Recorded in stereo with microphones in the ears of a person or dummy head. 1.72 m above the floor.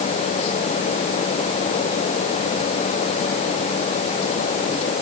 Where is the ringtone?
No ringtone in this recording.